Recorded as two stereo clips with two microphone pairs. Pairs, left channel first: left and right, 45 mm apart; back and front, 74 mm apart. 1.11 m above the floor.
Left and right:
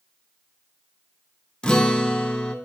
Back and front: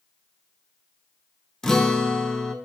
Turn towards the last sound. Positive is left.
turn(degrees=110)